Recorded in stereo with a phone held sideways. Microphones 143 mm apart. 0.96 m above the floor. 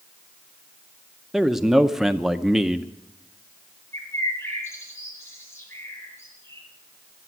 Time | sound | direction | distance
1.3 | a man speaking | centre (ahead or behind) | 0.6 m
3.9 | a bird | 15° left (ahead or behind) | 5 m